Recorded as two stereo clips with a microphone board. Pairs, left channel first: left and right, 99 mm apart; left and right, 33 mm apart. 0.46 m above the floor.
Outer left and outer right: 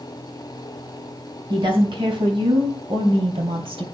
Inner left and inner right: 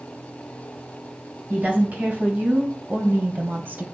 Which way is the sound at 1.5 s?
55° right (ahead or behind).